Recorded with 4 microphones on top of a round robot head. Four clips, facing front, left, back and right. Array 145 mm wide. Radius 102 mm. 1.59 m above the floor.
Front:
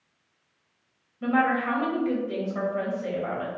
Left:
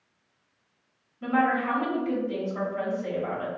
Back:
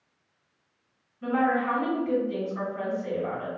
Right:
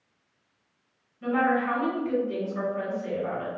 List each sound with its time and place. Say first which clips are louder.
1.2 s a woman speaking: even, front 1 dB; 15° left, 0.9 m